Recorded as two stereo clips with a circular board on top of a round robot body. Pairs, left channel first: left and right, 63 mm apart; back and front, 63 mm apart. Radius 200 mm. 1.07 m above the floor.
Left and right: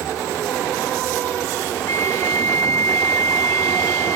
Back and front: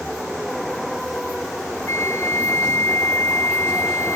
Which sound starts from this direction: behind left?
A flute, at 1.9 s.